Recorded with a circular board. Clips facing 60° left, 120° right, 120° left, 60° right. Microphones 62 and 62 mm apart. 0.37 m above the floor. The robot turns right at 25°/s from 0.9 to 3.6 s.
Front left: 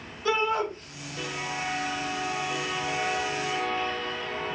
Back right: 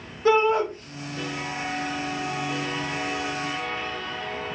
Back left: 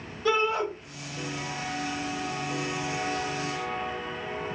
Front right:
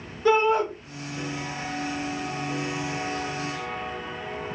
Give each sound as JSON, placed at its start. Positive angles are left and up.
{"t": 0.2, "sound": "a shout", "azimuth_deg": -110, "distance_m": 1.2}